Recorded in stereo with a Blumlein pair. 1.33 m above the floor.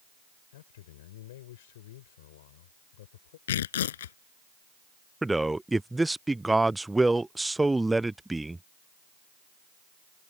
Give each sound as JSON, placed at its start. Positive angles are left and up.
{"t": 0.5, "sound": "a man speaking", "azimuth_deg": 55}
{"t": 3.5, "sound": "tearing paper", "azimuth_deg": 60}
{"t": 5.2, "sound": "a man speaking", "azimuth_deg": -5}